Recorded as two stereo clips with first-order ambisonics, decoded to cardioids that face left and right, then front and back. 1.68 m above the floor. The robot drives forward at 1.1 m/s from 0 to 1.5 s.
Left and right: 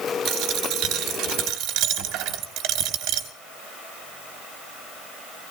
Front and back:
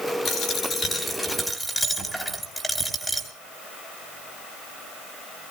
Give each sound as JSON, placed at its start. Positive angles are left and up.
{"t": 0.2, "sound": "a dropped coin", "azimuth_deg": -50, "distance_m": 2.5}